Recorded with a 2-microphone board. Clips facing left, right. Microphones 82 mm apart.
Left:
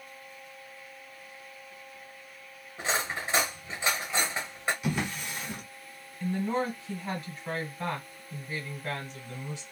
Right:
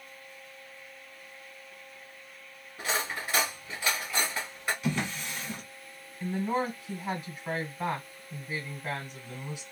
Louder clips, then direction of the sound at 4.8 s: Even; 10° left (ahead or behind).